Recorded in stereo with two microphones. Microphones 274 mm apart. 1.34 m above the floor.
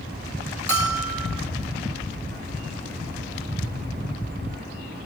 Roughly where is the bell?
Right.